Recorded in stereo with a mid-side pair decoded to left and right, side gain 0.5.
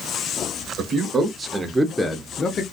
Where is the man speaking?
55° right, 1.2 m; by 2.6 s 45° left, 0.8 m.